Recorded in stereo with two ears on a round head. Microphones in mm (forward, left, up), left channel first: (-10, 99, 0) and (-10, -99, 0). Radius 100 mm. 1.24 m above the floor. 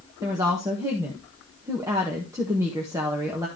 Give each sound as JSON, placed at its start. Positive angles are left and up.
{"t": 0.2, "sound": "a woman speaking", "side_deg": -15, "distance_m": 1.5}